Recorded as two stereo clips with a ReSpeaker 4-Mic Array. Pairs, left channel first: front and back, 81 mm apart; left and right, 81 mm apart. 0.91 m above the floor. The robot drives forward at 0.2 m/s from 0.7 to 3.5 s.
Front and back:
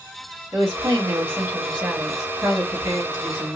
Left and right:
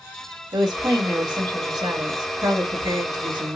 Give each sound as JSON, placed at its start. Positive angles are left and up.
{"t": 0.5, "sound": "a woman speaking", "azimuth_deg": -115, "distance_m": 1.5}